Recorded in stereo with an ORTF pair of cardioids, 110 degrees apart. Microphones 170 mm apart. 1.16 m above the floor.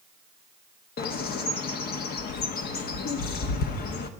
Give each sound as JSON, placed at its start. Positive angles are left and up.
{"t": 1.0, "sound": "a bird", "azimuth_deg": 65, "distance_m": 1.3}